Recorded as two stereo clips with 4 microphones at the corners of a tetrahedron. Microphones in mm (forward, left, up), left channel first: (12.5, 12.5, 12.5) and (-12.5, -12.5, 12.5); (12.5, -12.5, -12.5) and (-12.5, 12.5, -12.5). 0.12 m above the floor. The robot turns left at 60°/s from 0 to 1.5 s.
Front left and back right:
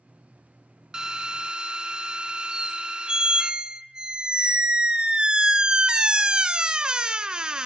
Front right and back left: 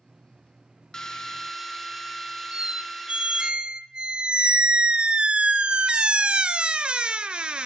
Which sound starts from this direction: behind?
A squeak, at 2.5 s.